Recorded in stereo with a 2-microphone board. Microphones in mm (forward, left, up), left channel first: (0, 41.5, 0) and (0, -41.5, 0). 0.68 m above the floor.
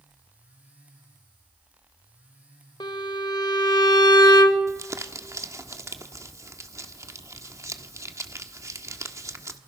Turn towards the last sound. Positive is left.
turn(degrees=-40)  # may be behind; listen again after turning